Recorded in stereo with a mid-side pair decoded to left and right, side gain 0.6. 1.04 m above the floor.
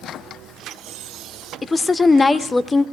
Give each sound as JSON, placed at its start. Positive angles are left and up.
{"t": 1.6, "sound": "a woman speaking", "azimuth_deg": 25, "distance_m": 0.6}